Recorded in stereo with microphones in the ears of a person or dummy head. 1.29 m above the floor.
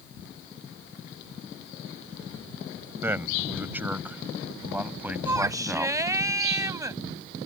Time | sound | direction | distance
3.0 | a man speaking | 20° right (ahead or behind) | ?
5.2 | a shout | 20° right (ahead or behind) | ?